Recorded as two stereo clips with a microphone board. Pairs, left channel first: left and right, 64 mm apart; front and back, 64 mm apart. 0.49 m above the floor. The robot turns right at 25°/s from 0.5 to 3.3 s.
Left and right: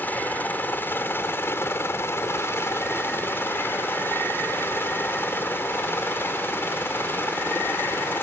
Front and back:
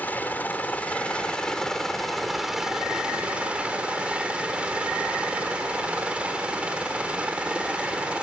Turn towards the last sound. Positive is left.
turn(degrees=115)